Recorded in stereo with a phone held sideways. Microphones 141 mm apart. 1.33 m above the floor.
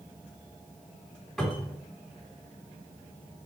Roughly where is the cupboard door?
Centre.